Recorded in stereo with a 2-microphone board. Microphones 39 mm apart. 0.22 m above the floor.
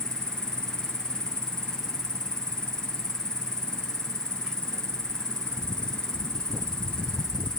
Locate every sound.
0.0 s an insect: 20° left (ahead or behind)